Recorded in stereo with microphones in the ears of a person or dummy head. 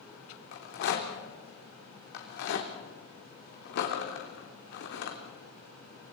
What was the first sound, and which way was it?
A rattle, 65° left (ahead or behind).